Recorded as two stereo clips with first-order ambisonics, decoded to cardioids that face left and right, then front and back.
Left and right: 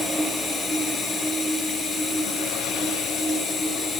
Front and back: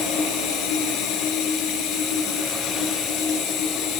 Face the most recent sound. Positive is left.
turn(degrees=25)